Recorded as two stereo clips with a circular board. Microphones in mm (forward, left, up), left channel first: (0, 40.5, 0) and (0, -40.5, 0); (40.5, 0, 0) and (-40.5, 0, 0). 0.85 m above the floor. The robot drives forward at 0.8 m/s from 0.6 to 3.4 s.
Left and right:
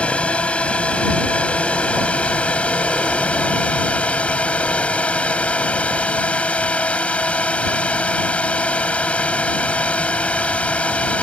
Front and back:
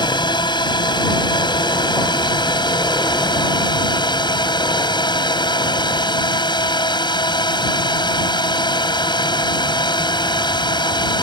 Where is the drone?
15° left.